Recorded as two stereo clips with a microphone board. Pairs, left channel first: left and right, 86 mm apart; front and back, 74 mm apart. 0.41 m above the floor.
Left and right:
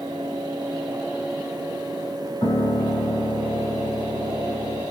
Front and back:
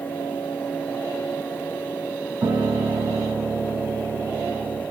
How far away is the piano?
About 3 m.